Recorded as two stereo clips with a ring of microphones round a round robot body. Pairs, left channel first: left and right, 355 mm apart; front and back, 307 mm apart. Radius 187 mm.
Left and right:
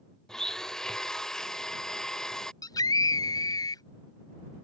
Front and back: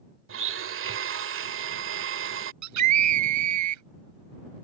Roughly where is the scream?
Behind.